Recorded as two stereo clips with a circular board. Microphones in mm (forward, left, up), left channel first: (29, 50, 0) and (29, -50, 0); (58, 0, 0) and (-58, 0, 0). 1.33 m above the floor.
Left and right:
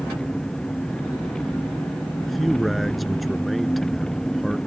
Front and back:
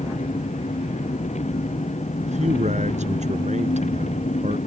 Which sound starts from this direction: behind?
A man speaking, at 2.2 s.